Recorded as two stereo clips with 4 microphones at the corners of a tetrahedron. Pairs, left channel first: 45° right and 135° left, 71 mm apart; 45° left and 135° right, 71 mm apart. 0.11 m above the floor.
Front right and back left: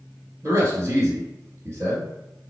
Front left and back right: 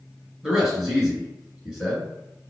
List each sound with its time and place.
0.4 s a man speaking: 145° left, 1.9 m